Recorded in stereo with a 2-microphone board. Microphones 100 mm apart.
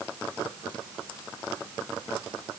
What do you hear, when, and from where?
Only background noise.